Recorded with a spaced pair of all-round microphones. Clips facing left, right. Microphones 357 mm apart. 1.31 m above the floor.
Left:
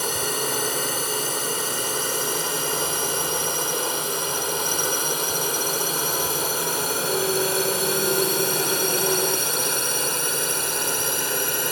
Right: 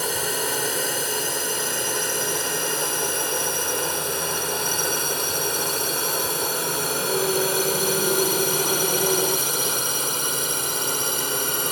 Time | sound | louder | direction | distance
0.0 | a drone | even | 10° left (ahead or behind) | ?